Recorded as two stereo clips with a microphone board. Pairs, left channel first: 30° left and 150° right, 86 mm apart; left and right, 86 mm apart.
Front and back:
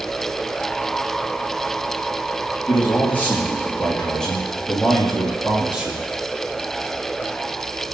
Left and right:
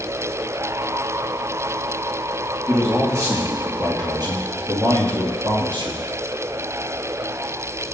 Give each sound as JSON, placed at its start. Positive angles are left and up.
{"t": 2.7, "sound": "a man speaking", "azimuth_deg": -30, "distance_m": 3.5}